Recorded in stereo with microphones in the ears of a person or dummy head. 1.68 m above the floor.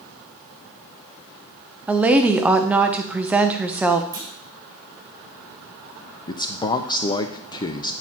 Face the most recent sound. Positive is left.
turn(degrees=20)  # may be behind; listen again after turning